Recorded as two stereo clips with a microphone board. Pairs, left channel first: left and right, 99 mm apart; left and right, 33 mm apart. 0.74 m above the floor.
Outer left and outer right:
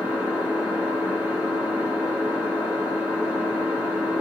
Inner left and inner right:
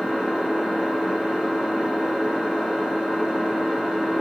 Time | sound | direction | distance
0.0 | an engine running | 15° right (ahead or behind) | 1.3 m